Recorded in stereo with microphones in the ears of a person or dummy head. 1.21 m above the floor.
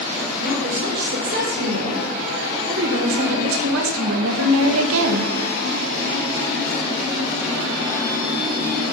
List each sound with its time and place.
0.4 s a woman speaking: 50° right (ahead or behind), 3.5 m; by 5.3 s 65° right (ahead or behind), 0.8 m